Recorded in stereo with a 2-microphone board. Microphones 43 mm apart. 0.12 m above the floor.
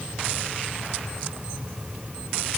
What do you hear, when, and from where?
Only background noise.